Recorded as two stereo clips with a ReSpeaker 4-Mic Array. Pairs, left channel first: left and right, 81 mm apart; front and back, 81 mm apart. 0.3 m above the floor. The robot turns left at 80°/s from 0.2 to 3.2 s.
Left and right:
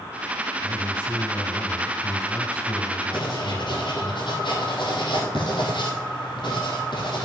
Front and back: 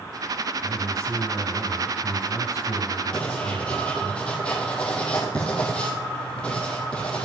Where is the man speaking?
Straight behind, 2 m; by 4.1 s 25° right, 2 m.